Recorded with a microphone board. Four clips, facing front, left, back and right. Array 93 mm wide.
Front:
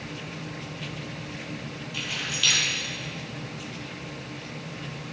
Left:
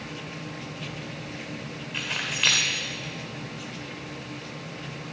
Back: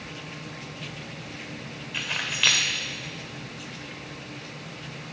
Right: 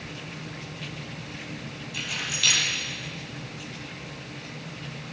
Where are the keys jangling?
140° left, 0.9 m.